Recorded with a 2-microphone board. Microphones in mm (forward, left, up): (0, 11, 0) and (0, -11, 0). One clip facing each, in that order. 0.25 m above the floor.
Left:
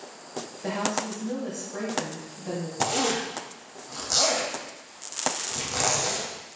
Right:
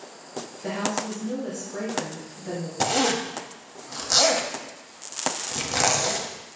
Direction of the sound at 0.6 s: 30° left (ahead or behind).